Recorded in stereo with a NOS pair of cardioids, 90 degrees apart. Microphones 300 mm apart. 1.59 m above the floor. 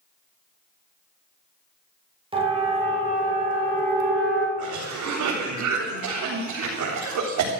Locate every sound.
2.3 s a siren: 20° right, 6 m; by 4.5 s 40° right, 5 m
4.6 s a cough: 70° right, 4 m